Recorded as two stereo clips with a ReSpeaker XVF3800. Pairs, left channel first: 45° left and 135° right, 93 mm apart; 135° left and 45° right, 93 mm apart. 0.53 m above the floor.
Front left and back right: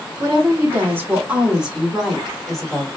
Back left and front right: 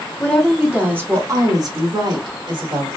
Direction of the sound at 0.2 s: 150° right.